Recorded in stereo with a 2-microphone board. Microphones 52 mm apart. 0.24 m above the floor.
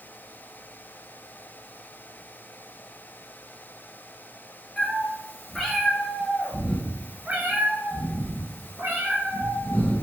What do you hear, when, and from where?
4.8 s a cat meowing: 10° left (ahead or behind), 2.5 m; by 10.0 s 75° right (ahead or behind), 2.5 m